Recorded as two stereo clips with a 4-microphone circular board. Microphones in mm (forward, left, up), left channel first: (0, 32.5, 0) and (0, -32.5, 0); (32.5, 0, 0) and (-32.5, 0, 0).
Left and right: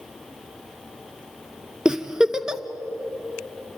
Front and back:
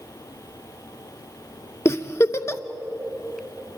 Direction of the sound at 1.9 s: 15° right.